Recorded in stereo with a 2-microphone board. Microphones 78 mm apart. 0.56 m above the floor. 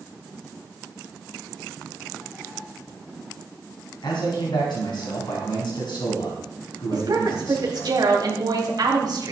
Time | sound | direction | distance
4.0 | a man speaking | 80° left | 4 m
6.9 | a woman speaking | 60° right (ahead or behind) | 3 m